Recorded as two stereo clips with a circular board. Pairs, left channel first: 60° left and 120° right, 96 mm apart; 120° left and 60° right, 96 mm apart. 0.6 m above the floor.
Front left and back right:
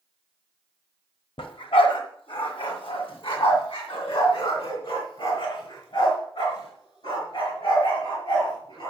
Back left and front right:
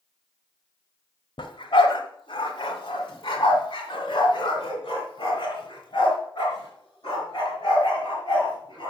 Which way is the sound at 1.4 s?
85° left.